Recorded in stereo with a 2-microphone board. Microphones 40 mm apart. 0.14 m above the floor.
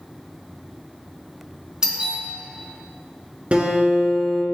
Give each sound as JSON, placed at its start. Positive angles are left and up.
{"t": 1.8, "sound": "a doorbell", "side_deg": -20, "distance_m": 1.9}
{"t": 3.5, "sound": "a guitar", "side_deg": -35, "distance_m": 2.0}